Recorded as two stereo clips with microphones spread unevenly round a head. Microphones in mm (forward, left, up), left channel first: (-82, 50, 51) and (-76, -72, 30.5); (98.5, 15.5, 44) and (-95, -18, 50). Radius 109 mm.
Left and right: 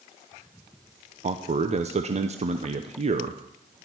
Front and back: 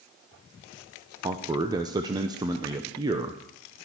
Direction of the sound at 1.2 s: 100° right.